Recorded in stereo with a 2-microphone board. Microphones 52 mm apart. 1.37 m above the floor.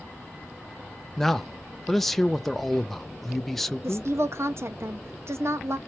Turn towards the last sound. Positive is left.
turn(degrees=-55)  # may be behind; listen again after turning